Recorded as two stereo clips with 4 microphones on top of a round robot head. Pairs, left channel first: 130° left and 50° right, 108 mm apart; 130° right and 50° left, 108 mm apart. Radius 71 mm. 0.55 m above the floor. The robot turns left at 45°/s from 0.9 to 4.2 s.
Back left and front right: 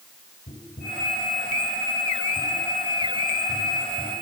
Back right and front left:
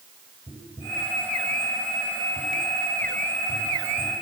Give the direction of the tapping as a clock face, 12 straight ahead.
7 o'clock.